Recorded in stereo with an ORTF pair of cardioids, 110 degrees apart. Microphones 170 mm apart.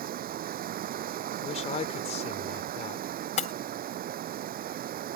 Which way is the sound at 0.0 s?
65° right.